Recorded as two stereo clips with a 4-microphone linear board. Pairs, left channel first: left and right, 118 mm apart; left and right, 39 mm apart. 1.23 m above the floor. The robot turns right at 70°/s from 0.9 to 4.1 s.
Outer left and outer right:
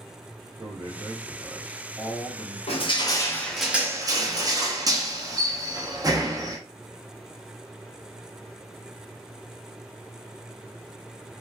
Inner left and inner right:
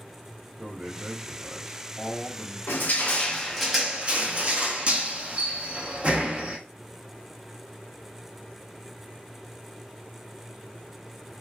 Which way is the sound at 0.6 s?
45° right.